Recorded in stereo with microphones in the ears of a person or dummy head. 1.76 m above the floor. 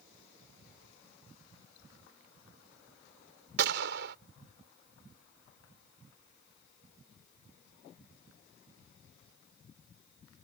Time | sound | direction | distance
3.6 | a gunshot | 70° right (ahead or behind) | ?